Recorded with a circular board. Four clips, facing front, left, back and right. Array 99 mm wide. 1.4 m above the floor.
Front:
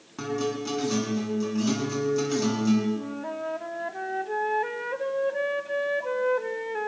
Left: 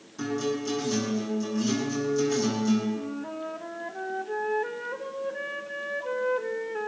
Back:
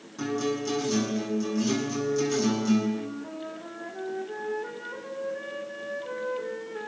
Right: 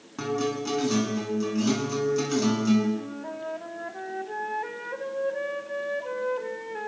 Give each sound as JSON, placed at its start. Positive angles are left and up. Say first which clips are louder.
{"t": 0.2, "sound": "a guitar", "louder": "right 1 dB, even", "azimuth_deg": -60, "distance_m": 8.5}
{"t": 3.0, "sound": "a flute", "louder": "left 1 dB, front 3 dB", "azimuth_deg": -10, "distance_m": 1.5}